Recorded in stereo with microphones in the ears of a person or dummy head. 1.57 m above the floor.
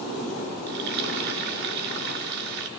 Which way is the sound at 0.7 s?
60° right (ahead or behind).